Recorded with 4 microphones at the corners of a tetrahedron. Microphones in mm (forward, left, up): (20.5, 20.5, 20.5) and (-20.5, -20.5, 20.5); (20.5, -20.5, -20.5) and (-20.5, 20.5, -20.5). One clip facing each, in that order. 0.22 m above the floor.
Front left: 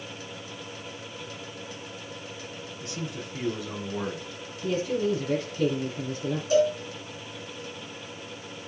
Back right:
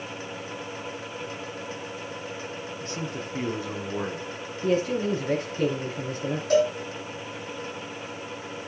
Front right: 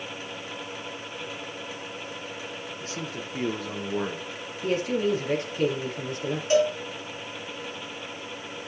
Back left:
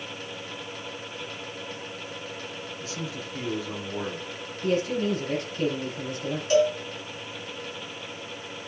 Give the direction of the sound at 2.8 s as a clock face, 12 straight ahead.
3 o'clock.